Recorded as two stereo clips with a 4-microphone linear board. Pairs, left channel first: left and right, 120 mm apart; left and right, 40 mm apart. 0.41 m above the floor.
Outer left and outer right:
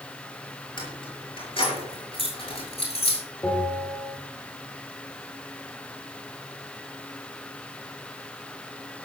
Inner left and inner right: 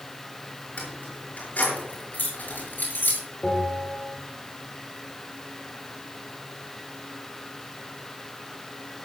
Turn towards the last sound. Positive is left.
turn(degrees=20)  # may be behind; listen again after turning